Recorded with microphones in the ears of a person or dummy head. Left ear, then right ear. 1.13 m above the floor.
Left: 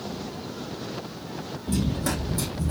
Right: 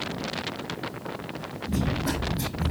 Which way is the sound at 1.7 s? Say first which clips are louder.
Even; 40° left (ahead or behind).